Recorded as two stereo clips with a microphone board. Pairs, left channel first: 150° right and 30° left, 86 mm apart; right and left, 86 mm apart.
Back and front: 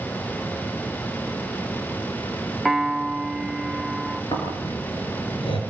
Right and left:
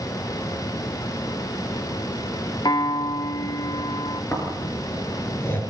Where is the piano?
60° right, 0.6 m.